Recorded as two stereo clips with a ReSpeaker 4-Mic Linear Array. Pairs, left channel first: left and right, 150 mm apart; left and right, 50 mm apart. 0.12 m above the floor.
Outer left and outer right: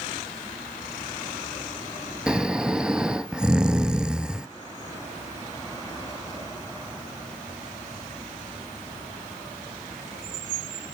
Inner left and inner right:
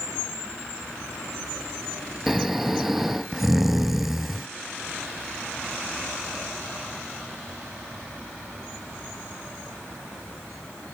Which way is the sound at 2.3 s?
5° right (ahead or behind).